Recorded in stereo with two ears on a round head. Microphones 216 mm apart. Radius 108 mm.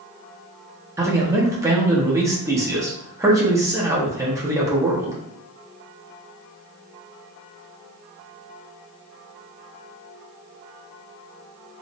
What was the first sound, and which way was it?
A man speaking, 15° right (ahead or behind).